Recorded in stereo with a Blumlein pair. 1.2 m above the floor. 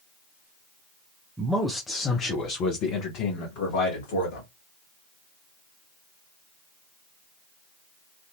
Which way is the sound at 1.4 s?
10° right.